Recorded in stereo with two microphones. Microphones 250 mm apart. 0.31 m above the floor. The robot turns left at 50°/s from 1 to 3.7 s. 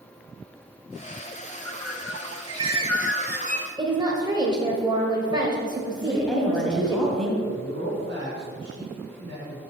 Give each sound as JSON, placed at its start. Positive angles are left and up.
{"t": 1.5, "sound": "a bird", "azimuth_deg": -50, "distance_m": 0.6}
{"t": 3.8, "sound": "a woman speaking", "side_deg": -15, "distance_m": 0.9}
{"t": 6.0, "sound": "a woman speaking", "side_deg": 5, "distance_m": 2.0}
{"t": 7.5, "sound": "a man speaking", "side_deg": -50, "distance_m": 3.0}